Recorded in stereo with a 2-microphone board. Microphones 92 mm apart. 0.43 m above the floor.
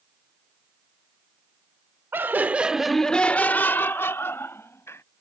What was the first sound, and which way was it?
Laughter, 25° right (ahead or behind).